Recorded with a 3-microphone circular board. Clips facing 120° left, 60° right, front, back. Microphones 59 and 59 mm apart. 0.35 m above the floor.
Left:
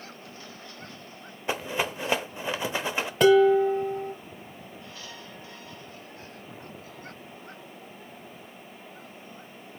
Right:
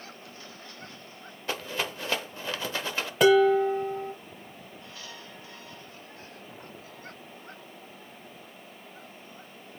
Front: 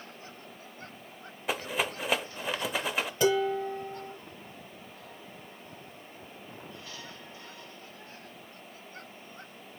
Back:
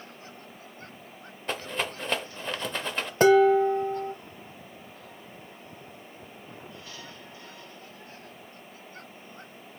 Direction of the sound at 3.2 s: 145° right.